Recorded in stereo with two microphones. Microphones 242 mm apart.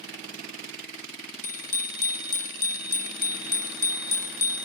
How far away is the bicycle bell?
About 4 m.